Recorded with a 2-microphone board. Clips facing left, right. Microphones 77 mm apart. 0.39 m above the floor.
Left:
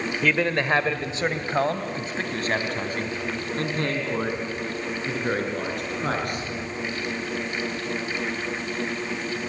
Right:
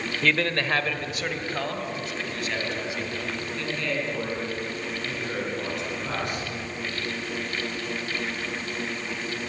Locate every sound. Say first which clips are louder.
0.2 s a man speaking: left 2 dB; 10° left (ahead or behind), 1.3 m; by 6.5 s 55° left (ahead or behind), 6.5 m